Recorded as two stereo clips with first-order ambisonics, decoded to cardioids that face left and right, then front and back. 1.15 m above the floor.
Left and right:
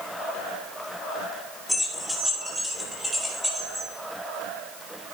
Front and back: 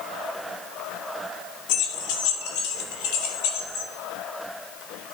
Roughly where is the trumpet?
No trumpet in this recording.